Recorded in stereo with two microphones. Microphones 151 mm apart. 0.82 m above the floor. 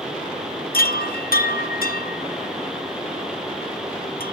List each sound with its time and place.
0.7 s a chime: 75° left (ahead or behind), 0.7 m